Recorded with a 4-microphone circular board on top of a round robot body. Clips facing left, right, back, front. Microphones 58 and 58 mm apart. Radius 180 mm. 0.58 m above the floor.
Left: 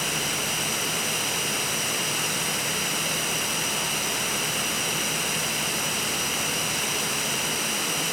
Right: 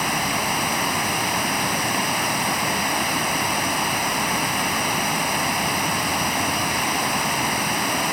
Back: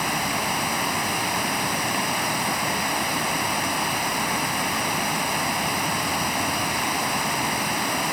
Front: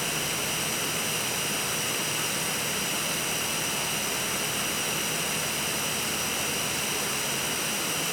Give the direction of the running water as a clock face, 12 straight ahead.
5 o'clock.